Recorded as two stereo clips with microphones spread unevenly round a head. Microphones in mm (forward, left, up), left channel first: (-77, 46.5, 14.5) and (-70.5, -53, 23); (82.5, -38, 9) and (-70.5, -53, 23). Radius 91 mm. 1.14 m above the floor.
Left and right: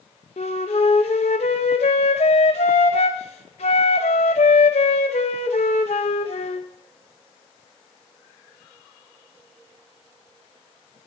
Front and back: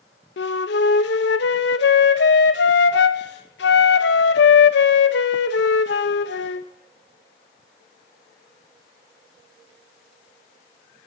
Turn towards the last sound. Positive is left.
turn(degrees=40)